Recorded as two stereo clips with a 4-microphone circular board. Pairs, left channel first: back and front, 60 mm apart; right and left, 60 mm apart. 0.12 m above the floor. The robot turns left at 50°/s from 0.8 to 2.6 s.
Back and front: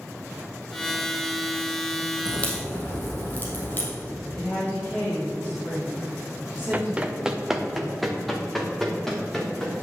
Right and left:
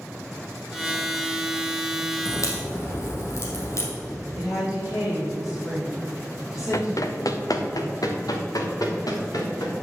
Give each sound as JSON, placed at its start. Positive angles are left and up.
{"t": 2.2, "sound": "a crack", "azimuth_deg": -105, "distance_m": 3.0}
{"t": 4.3, "sound": "a woman speaking", "azimuth_deg": -120, "distance_m": 4.5}
{"t": 6.7, "sound": "running footsteps", "azimuth_deg": -60, "distance_m": 1.0}